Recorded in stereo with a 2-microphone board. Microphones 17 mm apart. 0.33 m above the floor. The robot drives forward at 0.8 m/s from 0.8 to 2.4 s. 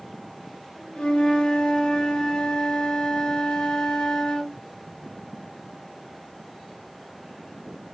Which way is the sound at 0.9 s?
75° left (ahead or behind).